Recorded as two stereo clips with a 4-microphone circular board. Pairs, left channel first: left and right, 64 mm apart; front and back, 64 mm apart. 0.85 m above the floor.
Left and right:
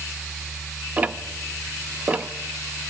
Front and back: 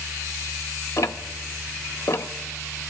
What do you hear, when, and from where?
1.0 s ticking: 25° right, 0.7 m